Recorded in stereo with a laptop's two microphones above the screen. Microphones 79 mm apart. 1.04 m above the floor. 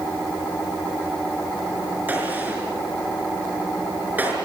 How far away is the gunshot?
About 5 m.